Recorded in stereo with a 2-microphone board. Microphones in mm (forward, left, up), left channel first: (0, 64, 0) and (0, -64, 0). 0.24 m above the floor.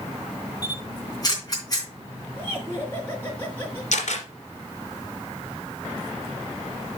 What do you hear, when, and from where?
0.6 s a camera shutter: 30° left (ahead or behind), 3 m
2.4 s laughter: 15° left (ahead or behind), 3 m
3.9 s a camera shutter: 75° left (ahead or behind), 3 m